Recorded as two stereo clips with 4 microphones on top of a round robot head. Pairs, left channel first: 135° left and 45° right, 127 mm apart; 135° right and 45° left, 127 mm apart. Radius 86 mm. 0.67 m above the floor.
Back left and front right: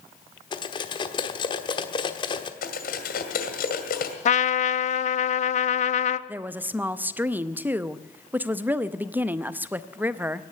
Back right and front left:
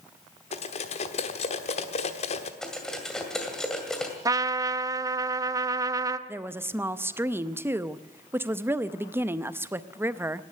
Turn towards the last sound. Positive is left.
turn(degrees=5)